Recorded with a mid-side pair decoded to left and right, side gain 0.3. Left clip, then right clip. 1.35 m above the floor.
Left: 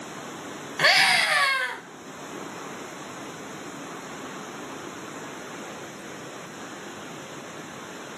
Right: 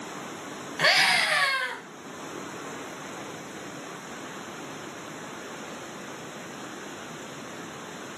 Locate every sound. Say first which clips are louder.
0.8 s a scream: left 2 dB; 25° left, 1.6 m